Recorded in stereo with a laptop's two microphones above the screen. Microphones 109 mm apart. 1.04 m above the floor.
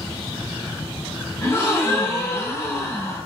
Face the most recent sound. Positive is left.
turn(degrees=30)  # may be behind; listen again after turning